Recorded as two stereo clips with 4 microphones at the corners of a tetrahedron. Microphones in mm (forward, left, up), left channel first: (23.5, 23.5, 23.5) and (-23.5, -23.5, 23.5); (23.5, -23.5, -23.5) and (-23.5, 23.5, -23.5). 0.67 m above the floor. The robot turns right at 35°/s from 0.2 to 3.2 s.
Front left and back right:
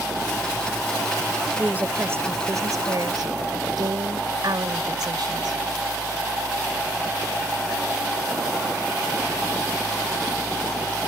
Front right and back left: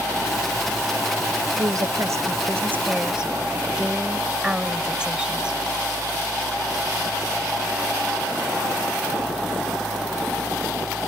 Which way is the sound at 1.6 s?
155° left.